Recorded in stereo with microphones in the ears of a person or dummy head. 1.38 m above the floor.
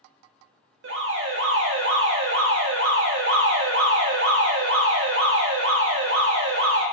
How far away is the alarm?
About 0.7 m.